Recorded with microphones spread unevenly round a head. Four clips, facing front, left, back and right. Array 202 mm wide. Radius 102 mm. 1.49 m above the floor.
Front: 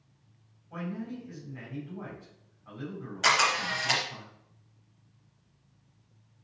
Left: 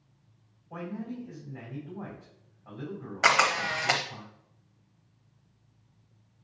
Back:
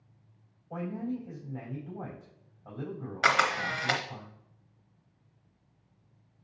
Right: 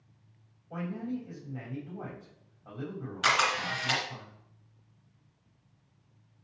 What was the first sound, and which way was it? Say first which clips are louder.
A man speaking: right 2 dB, back 2 dB; 160° right.